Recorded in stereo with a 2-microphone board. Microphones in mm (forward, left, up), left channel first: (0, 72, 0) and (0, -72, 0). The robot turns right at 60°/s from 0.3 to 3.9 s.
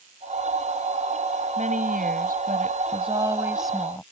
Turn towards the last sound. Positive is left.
turn(degrees=15)